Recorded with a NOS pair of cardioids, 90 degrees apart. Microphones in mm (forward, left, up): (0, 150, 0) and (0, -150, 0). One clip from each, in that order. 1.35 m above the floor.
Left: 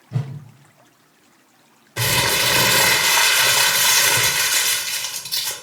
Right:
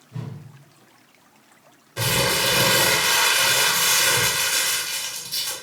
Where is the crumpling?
25° left, 1.1 m.